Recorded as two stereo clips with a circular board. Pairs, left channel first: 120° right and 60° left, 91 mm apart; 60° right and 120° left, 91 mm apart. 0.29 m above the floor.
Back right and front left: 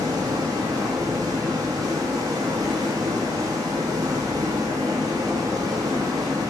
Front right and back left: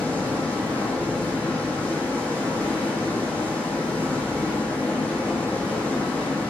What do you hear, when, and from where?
0.0 s running water: 15° left, 1.2 m